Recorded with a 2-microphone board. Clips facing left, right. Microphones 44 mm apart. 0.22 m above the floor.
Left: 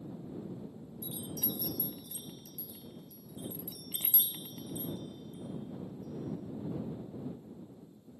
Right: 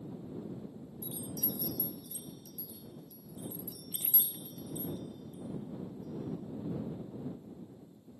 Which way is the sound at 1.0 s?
50° left (ahead or behind).